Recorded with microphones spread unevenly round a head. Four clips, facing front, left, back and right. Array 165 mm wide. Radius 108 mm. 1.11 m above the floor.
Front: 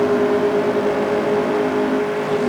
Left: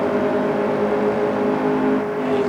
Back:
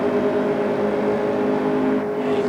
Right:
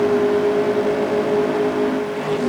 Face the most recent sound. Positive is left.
No sound to turn to.